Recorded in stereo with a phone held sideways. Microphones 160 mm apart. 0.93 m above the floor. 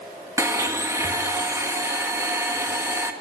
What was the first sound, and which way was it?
A blender, 20° right (ahead or behind).